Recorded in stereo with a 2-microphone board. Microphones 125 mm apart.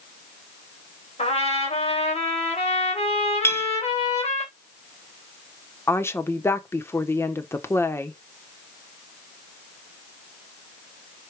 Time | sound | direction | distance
1.2 | a trumpet | 55° left (ahead or behind) | 3 m
3.4 | a clink | 20° left (ahead or behind) | 1.0 m
5.9 | a woman speaking | 20° left (ahead or behind) | 1.0 m